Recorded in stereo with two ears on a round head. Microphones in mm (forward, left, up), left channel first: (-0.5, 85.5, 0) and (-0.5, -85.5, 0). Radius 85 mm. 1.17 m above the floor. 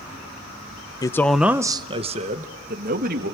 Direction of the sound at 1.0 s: 20° left (ahead or behind).